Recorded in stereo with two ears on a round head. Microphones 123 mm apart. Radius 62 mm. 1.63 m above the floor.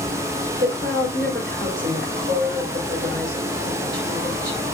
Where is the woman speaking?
70° right (ahead or behind), 8.5 m.